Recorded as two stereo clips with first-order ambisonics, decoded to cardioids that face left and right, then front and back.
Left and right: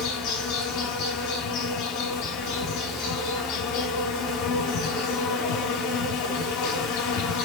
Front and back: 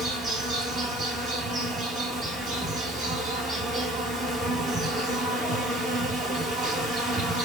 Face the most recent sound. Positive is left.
turn(degrees=115)